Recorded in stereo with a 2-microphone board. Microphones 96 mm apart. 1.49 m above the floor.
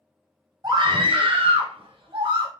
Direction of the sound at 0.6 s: 45° right (ahead or behind).